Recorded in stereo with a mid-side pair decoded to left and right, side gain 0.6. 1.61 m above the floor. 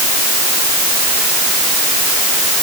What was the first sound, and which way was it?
Only background noise.